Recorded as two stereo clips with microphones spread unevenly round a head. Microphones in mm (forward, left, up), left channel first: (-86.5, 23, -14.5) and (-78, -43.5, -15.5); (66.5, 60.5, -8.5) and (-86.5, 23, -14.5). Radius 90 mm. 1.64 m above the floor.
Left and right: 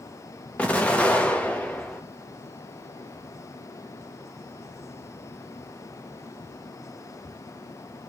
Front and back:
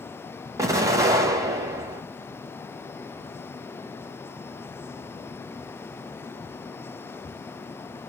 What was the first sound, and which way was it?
An explosion, 140° left.